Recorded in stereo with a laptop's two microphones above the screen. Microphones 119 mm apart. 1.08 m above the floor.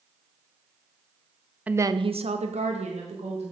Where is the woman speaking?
10° right (ahead or behind), 0.7 m; by 3.5 s 65° right (ahead or behind), 2 m.